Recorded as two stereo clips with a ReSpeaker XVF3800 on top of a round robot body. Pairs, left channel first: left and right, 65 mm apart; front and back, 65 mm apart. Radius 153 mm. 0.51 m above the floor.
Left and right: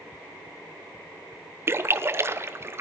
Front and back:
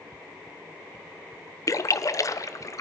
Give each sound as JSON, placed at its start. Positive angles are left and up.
{"t": 1.7, "sound": "a splash", "azimuth_deg": -35, "distance_m": 0.6}